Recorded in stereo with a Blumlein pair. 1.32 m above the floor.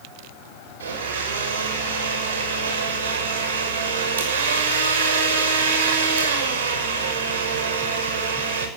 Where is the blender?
60° right, 6 m.